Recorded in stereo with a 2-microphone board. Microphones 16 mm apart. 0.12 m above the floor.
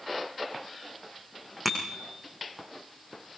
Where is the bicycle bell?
5° left (ahead or behind), 5.5 m.